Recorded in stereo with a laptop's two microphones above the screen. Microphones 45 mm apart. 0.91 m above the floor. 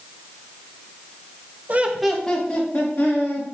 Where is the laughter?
40° right (ahead or behind), 0.8 m; by 3.4 s 40° left (ahead or behind), 2.5 m.